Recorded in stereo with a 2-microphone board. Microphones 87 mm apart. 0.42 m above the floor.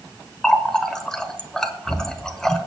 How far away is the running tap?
About 0.8 m.